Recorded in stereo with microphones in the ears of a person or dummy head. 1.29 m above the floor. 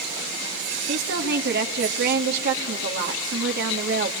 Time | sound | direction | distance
0.9 | a woman speaking | 55° right (ahead or behind) | 2.5 m